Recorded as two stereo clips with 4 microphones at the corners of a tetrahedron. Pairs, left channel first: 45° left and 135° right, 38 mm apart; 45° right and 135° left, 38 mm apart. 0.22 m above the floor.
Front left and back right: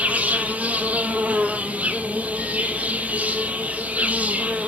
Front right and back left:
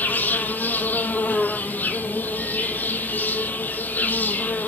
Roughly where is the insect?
Right.